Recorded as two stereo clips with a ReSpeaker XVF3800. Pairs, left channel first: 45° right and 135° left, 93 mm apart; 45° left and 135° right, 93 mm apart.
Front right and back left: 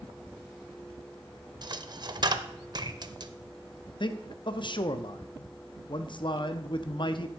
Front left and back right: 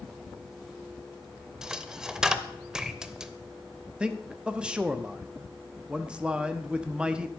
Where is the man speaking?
55° right, 0.7 m.